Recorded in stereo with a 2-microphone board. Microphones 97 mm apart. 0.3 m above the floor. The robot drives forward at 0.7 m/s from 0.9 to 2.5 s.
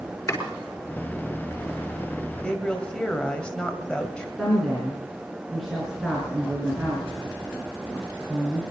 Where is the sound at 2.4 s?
10° left (ahead or behind), 1.8 m.